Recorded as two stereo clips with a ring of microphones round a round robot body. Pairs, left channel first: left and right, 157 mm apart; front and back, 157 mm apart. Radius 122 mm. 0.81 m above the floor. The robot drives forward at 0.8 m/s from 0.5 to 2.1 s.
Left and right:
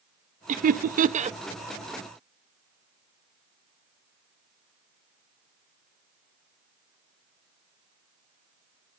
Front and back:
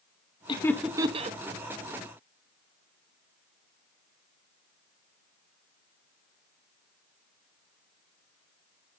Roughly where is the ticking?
I don't hear ticking.